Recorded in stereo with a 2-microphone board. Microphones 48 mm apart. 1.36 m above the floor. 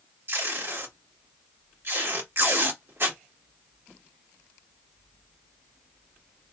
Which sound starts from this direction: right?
Tape being pulled, at 0.3 s.